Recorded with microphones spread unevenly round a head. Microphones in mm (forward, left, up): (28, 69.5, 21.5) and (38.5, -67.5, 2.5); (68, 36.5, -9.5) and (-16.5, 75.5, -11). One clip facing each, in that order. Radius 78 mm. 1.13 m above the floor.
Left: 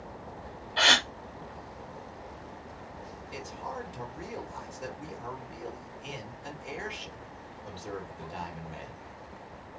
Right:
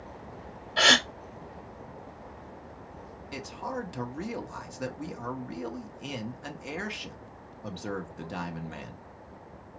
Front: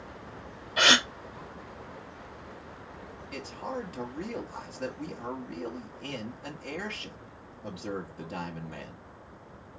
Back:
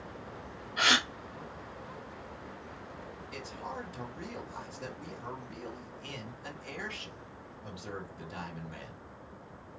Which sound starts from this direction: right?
A man speaking, at 3.3 s.